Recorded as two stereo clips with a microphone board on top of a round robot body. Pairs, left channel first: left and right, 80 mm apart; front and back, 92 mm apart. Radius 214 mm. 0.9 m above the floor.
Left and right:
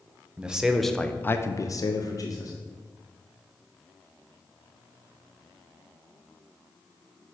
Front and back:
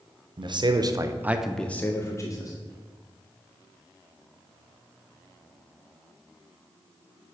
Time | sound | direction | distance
0.4 | a man speaking | 165° right | 1.2 m